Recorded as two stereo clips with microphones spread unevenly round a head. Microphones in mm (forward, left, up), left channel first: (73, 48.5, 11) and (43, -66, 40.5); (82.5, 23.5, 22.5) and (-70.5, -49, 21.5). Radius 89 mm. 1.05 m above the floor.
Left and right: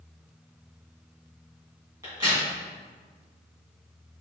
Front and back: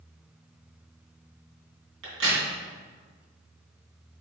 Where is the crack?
175° right, 3 m.